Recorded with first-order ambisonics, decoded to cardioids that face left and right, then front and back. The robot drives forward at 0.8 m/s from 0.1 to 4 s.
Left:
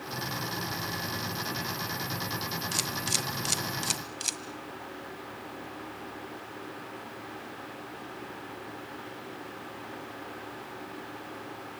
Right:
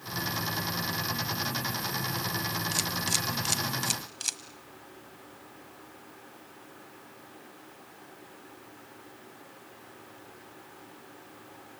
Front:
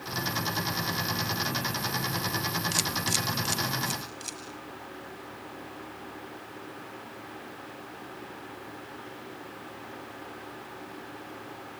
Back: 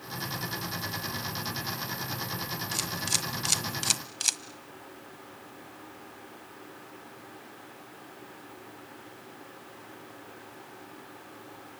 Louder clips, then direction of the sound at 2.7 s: Even, even; straight ahead.